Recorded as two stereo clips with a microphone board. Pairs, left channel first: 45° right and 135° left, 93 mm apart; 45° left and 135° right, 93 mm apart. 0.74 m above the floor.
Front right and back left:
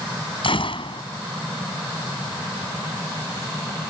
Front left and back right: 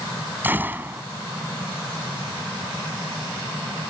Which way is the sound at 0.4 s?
65° right.